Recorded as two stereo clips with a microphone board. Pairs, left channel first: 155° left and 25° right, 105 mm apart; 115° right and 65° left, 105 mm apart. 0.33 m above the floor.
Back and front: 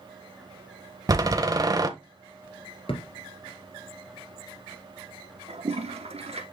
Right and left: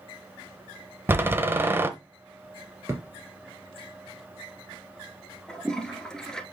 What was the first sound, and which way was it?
A door slam, 10° left.